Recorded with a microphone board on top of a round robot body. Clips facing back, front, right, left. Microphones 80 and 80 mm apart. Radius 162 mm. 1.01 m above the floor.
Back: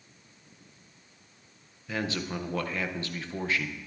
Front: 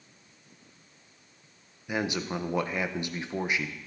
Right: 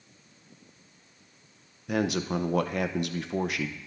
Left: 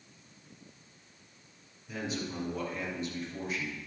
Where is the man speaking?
75° right, 0.7 m.